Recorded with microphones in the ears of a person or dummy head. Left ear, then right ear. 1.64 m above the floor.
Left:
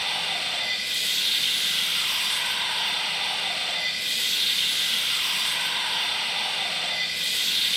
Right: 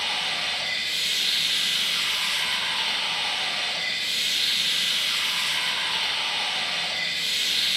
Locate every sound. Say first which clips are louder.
0.0 s running water: right 1 dB; 35° left (ahead or behind), 1.5 m